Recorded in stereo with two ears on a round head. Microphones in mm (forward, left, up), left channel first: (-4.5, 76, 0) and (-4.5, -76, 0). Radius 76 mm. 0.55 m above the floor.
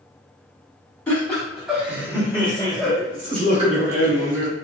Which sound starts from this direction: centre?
Laughter, at 1.1 s.